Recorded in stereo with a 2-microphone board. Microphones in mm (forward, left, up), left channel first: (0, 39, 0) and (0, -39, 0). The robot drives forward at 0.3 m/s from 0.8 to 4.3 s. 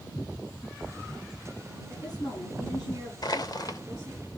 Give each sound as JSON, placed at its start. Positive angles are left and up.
{"t": 1.9, "sound": "a woman speaking", "side_deg": 75, "distance_m": 8.5}
{"t": 3.2, "sound": "crushing", "side_deg": 60, "distance_m": 0.9}